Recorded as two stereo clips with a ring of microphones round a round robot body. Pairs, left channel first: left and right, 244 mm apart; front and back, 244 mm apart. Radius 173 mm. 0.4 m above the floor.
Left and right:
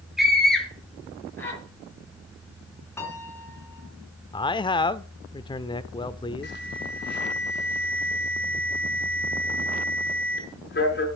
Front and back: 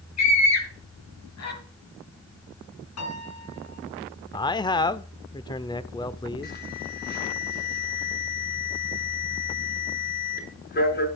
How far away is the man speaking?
About 0.8 m.